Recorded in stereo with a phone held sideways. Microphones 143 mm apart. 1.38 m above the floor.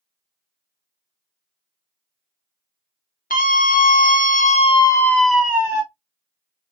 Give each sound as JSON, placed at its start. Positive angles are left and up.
{"t": 3.3, "sound": "a scream", "side_deg": 75, "distance_m": 1.0}